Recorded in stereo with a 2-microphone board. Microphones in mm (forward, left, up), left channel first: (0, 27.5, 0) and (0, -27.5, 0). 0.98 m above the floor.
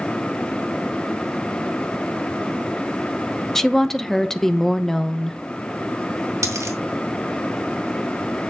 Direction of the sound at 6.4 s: 65° right (ahead or behind).